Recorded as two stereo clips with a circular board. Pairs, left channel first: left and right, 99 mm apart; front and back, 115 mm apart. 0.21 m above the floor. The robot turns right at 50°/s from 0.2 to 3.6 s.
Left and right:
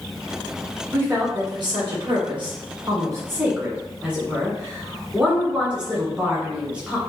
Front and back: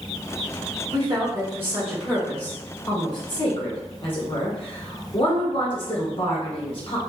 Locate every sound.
0.9 s a woman speaking: 150° right, 1.7 m; by 7.0 s 15° right, 1.7 m